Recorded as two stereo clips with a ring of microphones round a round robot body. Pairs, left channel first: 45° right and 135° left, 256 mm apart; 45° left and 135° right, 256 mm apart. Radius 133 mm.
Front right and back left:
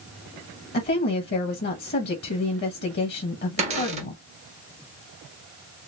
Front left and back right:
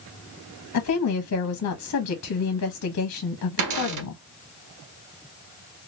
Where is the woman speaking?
10° left, 1.0 m.